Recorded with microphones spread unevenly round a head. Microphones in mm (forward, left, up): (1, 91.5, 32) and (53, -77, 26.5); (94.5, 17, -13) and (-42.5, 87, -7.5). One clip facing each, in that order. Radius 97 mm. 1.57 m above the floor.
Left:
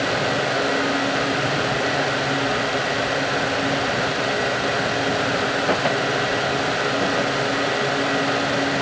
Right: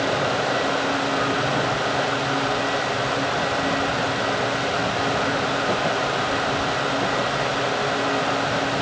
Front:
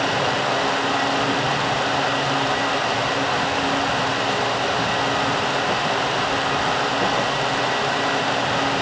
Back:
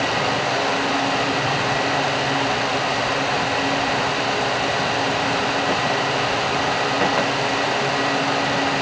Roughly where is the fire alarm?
No fire alarm in this recording.